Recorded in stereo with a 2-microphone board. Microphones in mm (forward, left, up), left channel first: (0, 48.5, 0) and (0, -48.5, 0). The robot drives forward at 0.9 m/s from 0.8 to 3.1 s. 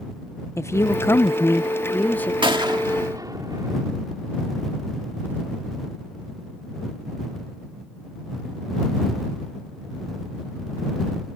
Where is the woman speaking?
30° left (ahead or behind); by 2.3 s 15° left (ahead or behind).